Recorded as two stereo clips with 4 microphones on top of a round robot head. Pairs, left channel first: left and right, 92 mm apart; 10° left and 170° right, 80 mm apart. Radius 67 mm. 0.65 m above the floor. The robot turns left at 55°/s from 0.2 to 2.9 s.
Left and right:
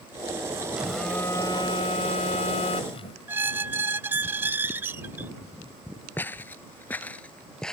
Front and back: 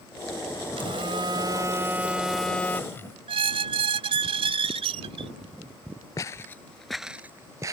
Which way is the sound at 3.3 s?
165° right.